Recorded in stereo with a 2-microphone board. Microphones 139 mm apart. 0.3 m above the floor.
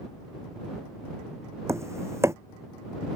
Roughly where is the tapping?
Right.